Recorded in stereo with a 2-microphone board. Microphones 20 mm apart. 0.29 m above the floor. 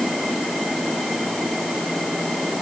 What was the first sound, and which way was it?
Only background noise.